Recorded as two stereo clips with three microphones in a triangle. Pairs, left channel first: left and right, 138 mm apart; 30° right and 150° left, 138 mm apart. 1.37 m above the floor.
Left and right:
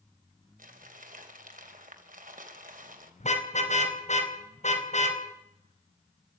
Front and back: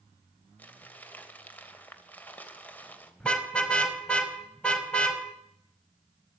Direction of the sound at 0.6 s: 110° right.